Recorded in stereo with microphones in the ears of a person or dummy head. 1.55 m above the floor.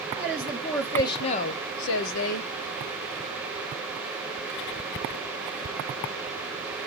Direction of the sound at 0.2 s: 10° right (ahead or behind).